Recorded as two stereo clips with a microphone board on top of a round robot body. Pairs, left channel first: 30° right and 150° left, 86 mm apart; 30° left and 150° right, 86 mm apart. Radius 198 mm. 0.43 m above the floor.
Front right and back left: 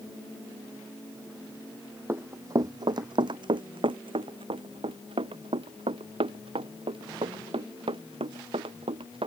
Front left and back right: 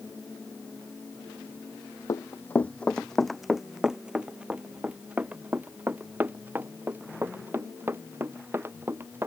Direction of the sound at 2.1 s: 85° left.